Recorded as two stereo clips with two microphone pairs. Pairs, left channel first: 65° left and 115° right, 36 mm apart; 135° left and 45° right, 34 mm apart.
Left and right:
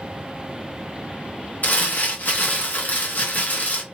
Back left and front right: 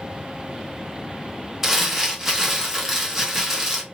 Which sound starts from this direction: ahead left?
Crumpling, at 1.6 s.